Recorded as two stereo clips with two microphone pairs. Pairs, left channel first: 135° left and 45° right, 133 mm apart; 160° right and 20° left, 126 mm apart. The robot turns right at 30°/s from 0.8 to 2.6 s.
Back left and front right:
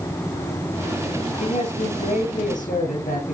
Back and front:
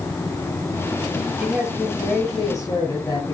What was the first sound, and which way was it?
A man speaking, 100° left.